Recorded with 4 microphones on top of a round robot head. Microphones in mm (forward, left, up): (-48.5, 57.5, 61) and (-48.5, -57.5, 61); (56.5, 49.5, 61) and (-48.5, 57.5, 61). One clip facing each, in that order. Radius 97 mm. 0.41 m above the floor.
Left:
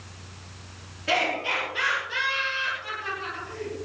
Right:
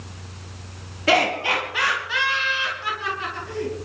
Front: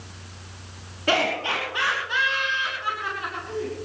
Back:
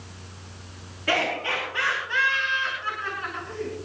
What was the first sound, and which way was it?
Laughter, 75° right.